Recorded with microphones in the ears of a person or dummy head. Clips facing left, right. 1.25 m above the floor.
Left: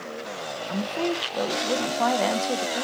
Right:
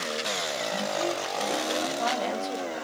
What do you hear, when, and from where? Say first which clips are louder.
0.7 s a woman speaking: left 4 dB; 60° left (ahead or behind), 0.8 m